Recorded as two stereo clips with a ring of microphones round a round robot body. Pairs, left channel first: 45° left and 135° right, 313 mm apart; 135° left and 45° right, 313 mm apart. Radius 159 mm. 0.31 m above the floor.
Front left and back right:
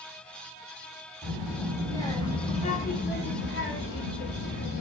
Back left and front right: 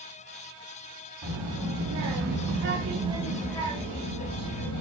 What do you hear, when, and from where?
1.2 s a child speaking: 40° right, 1.6 m; by 4.8 s 100° left, 1.4 m